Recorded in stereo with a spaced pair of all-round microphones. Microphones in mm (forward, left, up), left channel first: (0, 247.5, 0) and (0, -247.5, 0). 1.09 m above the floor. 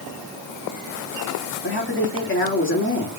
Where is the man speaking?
25° left (ahead or behind), 2.5 m.